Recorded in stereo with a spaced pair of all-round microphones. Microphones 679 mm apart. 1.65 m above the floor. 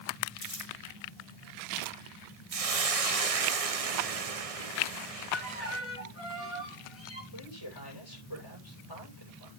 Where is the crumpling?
75° left (ahead or behind), 2.5 m.